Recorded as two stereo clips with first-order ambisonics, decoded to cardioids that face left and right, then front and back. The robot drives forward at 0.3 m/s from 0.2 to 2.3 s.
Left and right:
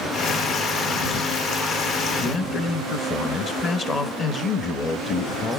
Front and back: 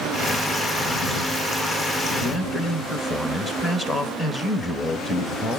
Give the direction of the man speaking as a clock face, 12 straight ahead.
9 o'clock.